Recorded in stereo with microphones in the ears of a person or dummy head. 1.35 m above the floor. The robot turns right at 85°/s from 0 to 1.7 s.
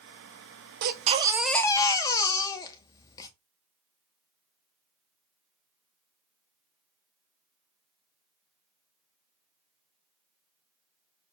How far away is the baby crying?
About 0.6 m.